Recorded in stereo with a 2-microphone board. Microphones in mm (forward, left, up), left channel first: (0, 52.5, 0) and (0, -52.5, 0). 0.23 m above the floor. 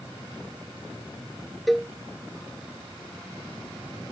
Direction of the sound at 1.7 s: Centre (ahead or behind).